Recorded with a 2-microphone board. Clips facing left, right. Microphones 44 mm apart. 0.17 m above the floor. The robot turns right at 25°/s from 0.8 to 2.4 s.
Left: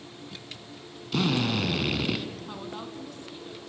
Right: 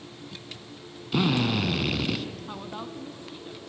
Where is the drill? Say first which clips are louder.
Right 2 dB; 10° right (ahead or behind), 1.3 m; by 2.2 s 5° left (ahead or behind), 1.3 m.